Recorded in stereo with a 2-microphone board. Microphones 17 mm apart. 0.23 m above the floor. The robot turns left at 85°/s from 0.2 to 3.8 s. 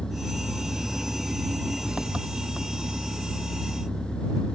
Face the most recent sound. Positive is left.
turn(degrees=105)